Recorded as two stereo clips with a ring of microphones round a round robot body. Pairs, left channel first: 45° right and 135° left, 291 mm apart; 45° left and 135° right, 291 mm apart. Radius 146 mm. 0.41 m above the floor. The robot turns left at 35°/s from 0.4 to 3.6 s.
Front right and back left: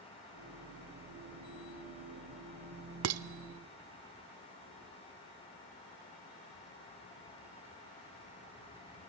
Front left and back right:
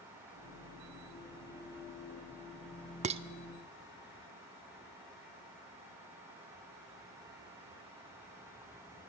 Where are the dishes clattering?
160° left, 0.7 m; by 3.2 s 155° left, 0.7 m.